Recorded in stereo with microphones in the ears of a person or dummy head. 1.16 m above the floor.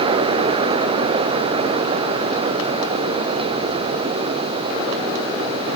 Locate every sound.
Only background noise.